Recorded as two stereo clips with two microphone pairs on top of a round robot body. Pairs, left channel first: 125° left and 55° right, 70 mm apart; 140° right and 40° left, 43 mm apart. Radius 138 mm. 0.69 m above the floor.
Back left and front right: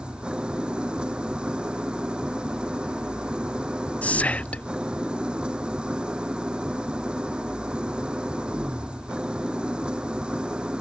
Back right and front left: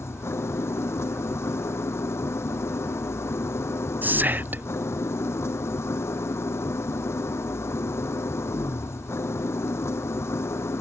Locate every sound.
0.0 s an engine running: 135° right
4.0 s whispering: 55° left